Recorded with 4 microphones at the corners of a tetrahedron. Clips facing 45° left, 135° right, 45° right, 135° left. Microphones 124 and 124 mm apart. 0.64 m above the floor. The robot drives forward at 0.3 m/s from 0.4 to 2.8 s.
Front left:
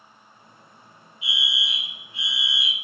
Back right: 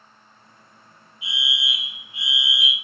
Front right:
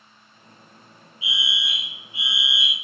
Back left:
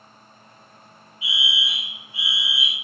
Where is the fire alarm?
55° right, 1.6 m; by 2.7 s 95° right, 1.6 m.